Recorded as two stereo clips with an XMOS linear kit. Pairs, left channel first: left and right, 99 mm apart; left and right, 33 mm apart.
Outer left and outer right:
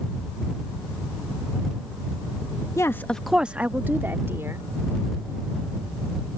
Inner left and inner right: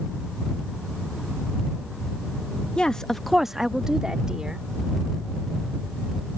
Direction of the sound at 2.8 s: 30° left (ahead or behind).